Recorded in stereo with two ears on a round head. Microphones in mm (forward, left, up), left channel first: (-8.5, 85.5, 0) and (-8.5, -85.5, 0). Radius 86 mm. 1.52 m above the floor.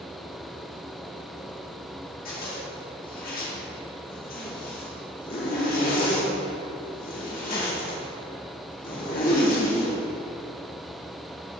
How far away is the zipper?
About 2.0 m.